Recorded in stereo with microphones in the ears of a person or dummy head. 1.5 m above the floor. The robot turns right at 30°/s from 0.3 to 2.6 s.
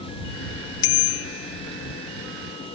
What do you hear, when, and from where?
0.8 s a bicycle bell: 55° left (ahead or behind); by 1.6 s 75° left (ahead or behind)